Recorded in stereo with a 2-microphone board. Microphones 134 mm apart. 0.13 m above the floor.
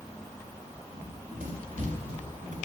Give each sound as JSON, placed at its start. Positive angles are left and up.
{"t": 0.9, "sound": "running footsteps", "side_deg": -80, "distance_m": 4.0}